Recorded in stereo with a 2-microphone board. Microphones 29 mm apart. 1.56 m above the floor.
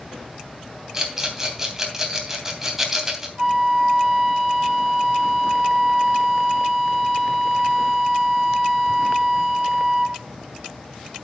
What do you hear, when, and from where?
0.9 s a rattle: 15° right (ahead or behind), 3 m
3.4 s a flute: 15° right (ahead or behind), 8.5 m